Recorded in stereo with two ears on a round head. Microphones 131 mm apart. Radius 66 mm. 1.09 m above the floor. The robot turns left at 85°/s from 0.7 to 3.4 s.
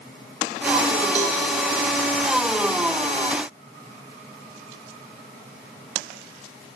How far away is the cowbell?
About 6.5 m.